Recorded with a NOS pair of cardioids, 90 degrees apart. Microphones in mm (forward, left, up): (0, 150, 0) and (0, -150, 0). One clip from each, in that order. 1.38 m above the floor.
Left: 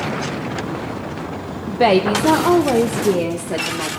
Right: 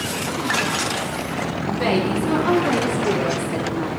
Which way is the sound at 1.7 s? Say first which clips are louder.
Left 7 dB; 65° left.